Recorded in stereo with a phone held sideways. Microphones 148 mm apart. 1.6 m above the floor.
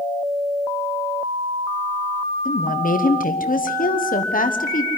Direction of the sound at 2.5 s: 70° left (ahead or behind).